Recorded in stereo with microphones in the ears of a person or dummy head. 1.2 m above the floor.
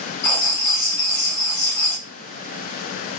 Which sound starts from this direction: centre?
Writing, at 0.2 s.